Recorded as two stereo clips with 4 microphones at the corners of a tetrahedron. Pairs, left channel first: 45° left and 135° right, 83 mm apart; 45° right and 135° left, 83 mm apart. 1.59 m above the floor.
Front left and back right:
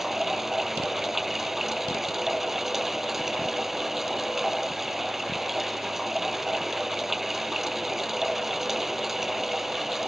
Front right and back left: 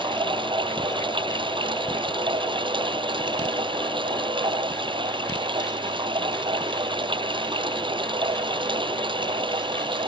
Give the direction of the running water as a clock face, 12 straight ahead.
7 o'clock.